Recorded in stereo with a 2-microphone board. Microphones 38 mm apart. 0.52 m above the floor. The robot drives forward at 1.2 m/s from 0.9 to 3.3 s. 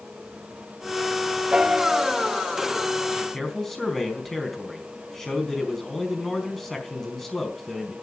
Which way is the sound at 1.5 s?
25° right (ahead or behind).